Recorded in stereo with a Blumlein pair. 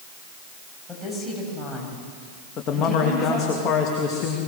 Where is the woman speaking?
5° left, 8 m.